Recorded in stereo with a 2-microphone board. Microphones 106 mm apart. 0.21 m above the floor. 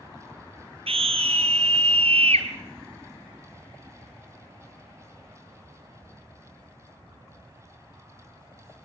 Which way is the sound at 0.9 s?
70° right (ahead or behind).